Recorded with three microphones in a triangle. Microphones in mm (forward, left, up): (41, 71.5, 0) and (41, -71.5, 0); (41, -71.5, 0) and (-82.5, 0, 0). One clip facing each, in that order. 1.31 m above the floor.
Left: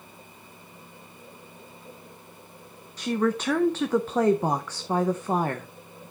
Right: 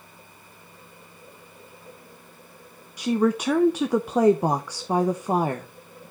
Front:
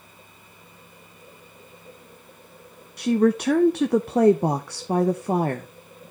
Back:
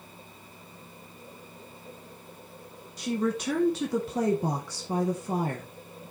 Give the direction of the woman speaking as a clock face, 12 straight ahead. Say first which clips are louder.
Right 3 dB, front 9 dB; 12 o'clock.